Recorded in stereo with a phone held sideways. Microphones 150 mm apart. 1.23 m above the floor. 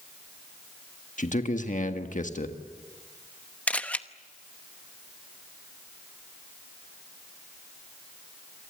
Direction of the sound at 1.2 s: 55° left (ahead or behind).